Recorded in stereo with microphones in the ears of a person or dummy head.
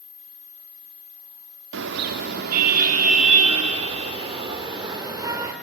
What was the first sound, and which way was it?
A car horn, 65° right (ahead or behind).